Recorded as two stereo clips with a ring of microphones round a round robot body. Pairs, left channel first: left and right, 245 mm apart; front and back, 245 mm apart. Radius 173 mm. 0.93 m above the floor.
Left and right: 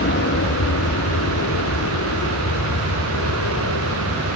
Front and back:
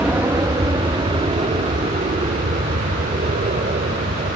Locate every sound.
0.0 s an aircraft: 100° left; by 4.4 s 125° left